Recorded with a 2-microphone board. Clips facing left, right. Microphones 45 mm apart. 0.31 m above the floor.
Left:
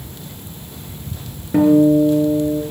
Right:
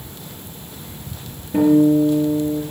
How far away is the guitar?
About 5 m.